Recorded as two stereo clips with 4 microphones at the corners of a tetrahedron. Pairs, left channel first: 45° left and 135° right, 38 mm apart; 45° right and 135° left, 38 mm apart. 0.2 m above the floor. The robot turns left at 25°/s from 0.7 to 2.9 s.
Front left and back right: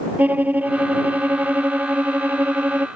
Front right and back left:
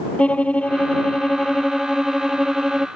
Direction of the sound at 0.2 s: 100° right.